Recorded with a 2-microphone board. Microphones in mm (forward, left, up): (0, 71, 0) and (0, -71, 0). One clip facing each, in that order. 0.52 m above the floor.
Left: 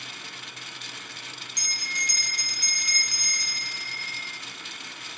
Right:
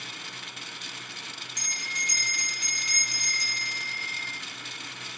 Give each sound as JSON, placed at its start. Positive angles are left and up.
{"t": 1.6, "sound": "a bell", "side_deg": -20, "distance_m": 2.5}